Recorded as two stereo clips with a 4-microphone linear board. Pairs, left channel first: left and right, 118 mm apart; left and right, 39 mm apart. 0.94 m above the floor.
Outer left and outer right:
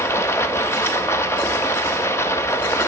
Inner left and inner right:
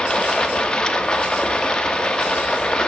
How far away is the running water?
About 0.8 m.